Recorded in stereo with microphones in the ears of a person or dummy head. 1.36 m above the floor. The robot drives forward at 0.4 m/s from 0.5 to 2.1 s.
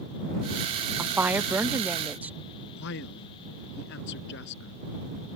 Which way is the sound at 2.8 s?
65° left (ahead or behind).